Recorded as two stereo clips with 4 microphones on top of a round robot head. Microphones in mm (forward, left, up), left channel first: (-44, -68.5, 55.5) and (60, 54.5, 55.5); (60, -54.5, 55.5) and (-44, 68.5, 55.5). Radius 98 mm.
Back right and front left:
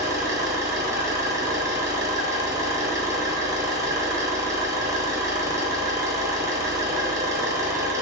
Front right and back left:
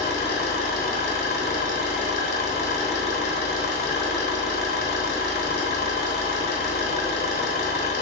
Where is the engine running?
25° right, 1.1 m.